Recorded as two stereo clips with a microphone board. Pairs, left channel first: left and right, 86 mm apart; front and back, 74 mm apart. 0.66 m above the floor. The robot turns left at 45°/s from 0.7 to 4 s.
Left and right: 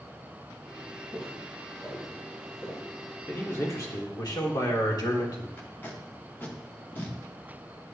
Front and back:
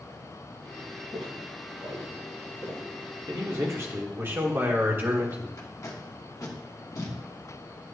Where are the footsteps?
140° right, 4 m; by 2.8 s 130° left, 6 m.